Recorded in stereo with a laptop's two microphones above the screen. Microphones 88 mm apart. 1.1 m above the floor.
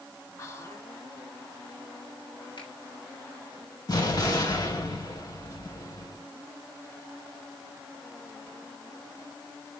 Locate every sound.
0.4 s whispering: 35° left (ahead or behind), 2.0 m
2.6 s a finger snap: 65° left (ahead or behind), 5 m
3.9 s an explosion: 45° left (ahead or behind), 4 m